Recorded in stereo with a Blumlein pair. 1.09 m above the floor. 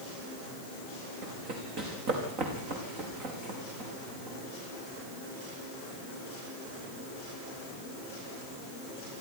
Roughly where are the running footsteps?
Ahead right.